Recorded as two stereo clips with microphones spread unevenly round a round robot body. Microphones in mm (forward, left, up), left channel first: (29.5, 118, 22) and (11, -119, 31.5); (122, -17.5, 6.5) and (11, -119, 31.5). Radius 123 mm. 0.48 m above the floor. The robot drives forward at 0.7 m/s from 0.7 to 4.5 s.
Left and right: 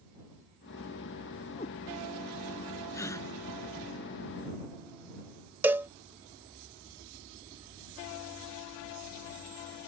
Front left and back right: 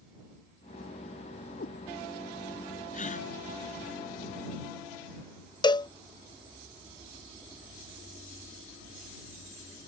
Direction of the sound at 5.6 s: 15° right.